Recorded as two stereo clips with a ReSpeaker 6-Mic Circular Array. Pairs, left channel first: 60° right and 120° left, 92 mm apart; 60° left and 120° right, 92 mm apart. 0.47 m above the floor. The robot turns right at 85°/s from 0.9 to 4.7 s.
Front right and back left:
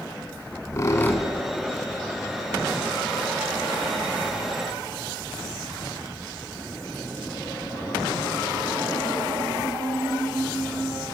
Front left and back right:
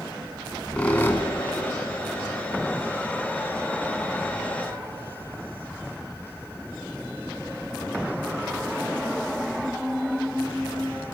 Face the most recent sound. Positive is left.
turn(degrees=-50)